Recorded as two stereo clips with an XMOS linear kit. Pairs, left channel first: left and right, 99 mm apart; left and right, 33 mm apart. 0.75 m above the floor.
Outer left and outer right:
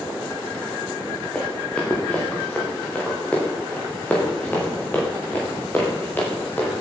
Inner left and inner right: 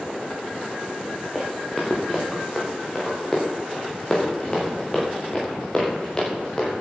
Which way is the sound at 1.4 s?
10° left (ahead or behind).